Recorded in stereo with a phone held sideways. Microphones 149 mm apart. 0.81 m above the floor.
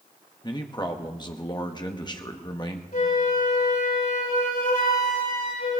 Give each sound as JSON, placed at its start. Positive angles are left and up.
{"t": 0.4, "sound": "a man speaking", "side_deg": 30, "distance_m": 1.2}
{"t": 2.9, "sound": "a flute", "side_deg": 85, "distance_m": 7.5}